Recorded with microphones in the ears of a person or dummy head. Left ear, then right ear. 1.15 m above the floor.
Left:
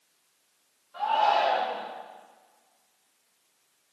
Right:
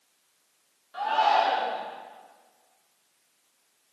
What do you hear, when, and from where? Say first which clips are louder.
0.9 s a shout: right 1 dB; 65° right (ahead or behind), 1.4 m